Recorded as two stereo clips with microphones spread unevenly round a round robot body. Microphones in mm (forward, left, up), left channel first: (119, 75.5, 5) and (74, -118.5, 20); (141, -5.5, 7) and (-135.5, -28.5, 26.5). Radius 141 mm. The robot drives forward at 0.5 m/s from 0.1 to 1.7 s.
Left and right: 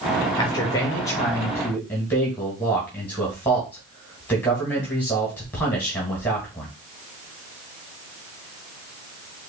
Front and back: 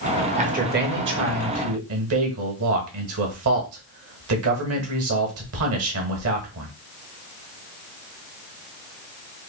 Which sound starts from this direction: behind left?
A man speaking, at 0.4 s.